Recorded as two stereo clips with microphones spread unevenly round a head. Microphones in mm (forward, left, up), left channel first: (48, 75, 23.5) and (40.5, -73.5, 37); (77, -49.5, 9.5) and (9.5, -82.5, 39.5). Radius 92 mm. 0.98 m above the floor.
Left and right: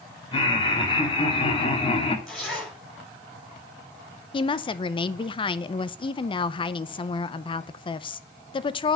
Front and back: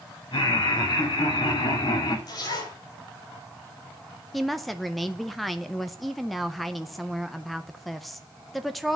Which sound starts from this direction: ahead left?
Laughter, at 0.3 s.